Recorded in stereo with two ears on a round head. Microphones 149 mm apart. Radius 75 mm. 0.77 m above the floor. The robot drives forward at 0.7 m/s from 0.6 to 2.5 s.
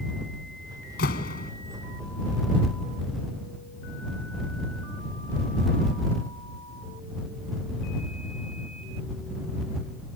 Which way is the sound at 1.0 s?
65° left (ahead or behind).